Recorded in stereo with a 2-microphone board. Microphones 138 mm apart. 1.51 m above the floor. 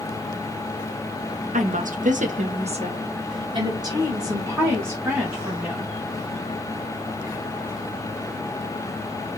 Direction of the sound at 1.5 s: 65° right (ahead or behind).